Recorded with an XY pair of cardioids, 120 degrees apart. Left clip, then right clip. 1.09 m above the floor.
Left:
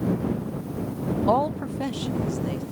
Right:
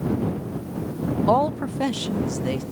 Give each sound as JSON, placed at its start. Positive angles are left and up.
{"t": 1.3, "sound": "a woman speaking", "azimuth_deg": -5}